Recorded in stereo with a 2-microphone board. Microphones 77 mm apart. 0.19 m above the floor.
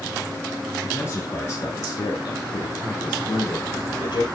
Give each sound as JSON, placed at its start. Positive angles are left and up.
{"t": 0.8, "sound": "a man speaking", "side_deg": 30, "distance_m": 2.0}